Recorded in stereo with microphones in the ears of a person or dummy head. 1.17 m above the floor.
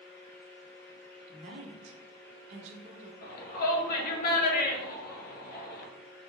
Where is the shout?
55° left (ahead or behind), 1.1 m.